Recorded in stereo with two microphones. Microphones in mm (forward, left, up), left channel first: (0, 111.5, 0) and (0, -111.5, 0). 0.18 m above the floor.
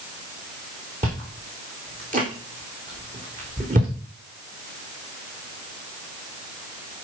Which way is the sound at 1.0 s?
35° right (ahead or behind).